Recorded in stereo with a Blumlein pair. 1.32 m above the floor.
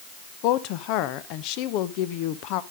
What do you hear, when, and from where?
0.4 s a woman speaking: 40° left, 1.0 m